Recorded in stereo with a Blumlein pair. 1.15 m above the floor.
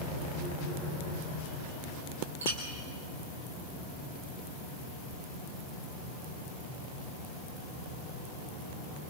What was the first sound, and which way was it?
A clink, 65° right.